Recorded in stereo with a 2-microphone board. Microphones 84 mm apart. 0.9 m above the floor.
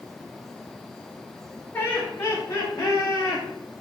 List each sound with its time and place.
1.7 s laughter: 25° left (ahead or behind), 2 m; by 3.4 s 50° left (ahead or behind), 4 m